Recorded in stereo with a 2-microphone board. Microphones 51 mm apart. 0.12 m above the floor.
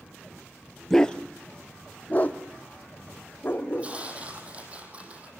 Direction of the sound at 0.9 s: 10° left (ahead or behind).